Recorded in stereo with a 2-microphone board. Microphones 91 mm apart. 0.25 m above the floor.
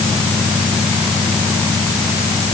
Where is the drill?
I don't hear a drill.